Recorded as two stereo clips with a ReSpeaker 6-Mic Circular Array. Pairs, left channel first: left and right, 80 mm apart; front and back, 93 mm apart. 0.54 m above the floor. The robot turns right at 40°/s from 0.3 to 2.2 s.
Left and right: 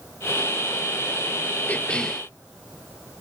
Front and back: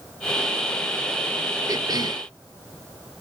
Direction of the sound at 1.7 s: 155° left.